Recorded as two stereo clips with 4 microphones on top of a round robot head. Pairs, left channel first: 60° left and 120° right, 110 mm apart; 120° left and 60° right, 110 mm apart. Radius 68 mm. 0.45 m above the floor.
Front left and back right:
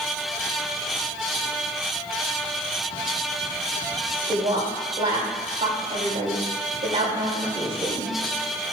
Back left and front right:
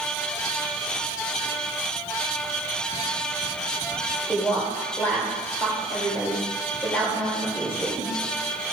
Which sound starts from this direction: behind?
A woman speaking, at 4.3 s.